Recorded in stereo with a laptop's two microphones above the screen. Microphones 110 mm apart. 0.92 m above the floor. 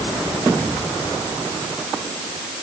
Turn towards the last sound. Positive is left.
No sound to turn to.